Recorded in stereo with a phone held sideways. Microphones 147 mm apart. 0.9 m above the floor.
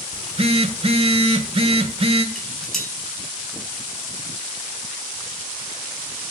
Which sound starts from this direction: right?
A phone buzzing, at 0.1 s.